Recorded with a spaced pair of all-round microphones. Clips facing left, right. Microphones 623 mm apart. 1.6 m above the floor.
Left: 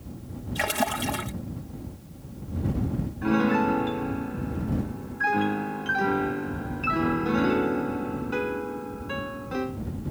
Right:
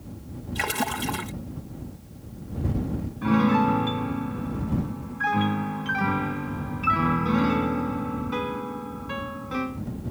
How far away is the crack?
No crack in this recording.